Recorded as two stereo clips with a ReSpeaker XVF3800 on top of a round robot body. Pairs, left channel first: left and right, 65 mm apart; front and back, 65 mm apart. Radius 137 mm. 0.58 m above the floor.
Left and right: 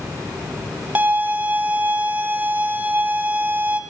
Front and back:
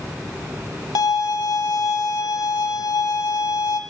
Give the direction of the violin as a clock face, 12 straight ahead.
1 o'clock.